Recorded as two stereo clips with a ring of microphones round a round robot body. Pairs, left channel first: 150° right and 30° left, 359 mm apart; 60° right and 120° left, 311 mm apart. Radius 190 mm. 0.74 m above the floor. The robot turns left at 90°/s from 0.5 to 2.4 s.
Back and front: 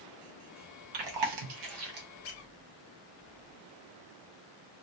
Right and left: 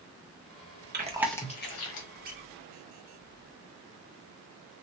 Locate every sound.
0.9 s chewing: 60° left, 1.2 m; by 2.1 s 40° right, 1.2 m
2.2 s a squeak: 175° left, 0.7 m; by 2.5 s 160° left, 0.7 m